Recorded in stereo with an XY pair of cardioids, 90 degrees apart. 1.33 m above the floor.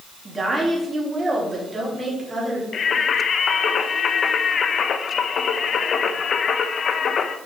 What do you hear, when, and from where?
0.2 s a woman speaking: 30° right, 3 m; by 2.6 s 25° right, 4.5 m
2.7 s singing: 60° left, 0.9 m